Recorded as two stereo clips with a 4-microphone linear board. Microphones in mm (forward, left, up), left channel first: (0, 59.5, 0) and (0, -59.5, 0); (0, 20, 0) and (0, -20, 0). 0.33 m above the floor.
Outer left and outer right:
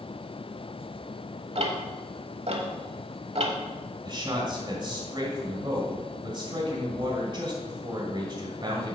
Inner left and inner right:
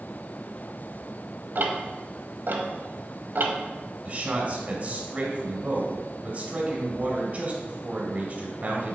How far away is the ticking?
About 1.1 m.